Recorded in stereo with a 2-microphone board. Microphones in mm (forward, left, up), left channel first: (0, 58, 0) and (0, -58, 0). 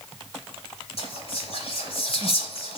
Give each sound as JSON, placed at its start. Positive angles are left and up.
{"t": 1.0, "sound": "whispering", "side_deg": 60, "distance_m": 3.0}